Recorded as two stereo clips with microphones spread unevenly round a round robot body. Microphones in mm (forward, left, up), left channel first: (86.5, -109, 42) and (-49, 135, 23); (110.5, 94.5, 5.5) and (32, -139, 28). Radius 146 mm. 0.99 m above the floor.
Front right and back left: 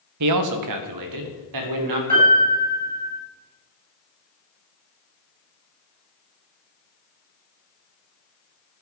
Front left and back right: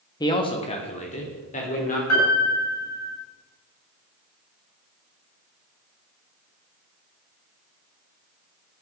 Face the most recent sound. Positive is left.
turn(degrees=55)